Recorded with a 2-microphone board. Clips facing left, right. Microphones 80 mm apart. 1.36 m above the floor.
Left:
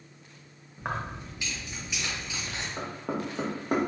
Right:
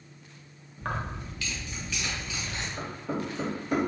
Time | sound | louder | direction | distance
0.8 | keys jangling | even | 15° left (ahead or behind) | 0.7 m
2.8 | knocking | left 1 dB | 50° left (ahead or behind) | 0.8 m